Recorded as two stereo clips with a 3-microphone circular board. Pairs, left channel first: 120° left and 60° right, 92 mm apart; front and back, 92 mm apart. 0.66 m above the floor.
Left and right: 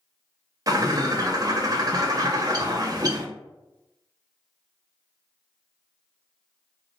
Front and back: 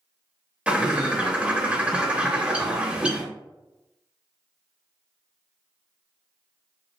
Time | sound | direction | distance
0.7 | a bird | 105° right | 0.7 m